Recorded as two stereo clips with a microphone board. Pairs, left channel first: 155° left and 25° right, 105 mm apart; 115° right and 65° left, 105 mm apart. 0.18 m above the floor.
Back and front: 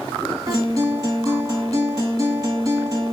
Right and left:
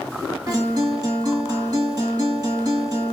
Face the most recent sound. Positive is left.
turn(degrees=25)